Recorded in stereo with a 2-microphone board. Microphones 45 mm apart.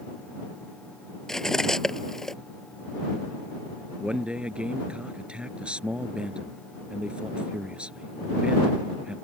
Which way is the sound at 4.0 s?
20° right (ahead or behind).